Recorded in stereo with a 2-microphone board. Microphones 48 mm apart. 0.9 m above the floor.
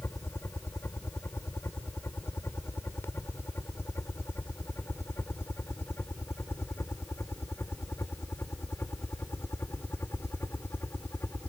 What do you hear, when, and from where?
0.0 s a helicopter: 70° left (ahead or behind); by 11.5 s 65° left (ahead or behind)